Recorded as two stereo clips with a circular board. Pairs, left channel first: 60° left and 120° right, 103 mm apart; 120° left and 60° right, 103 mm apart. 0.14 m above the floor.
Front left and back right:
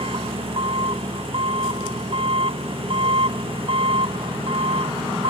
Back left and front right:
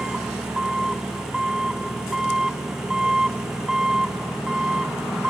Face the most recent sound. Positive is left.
turn(degrees=-145)